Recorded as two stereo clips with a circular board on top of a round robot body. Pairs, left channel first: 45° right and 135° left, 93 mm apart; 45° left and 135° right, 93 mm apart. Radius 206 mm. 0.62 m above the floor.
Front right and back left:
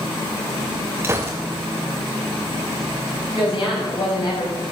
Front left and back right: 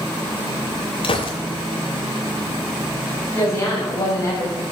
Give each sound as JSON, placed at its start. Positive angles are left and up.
{"t": 1.0, "sound": "a gunshot", "azimuth_deg": 70, "distance_m": 0.7}
{"t": 3.4, "sound": "a woman speaking", "azimuth_deg": -10, "distance_m": 6.0}